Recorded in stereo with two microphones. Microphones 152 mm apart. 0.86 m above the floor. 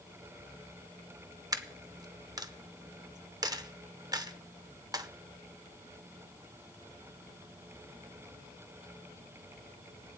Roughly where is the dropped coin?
Right.